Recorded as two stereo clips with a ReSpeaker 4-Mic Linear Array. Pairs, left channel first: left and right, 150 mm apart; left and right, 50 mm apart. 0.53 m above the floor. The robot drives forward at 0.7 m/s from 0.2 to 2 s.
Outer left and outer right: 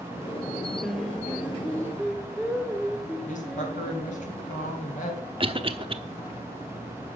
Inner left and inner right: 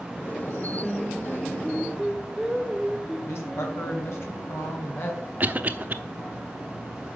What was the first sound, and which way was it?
Singing, centre (ahead or behind).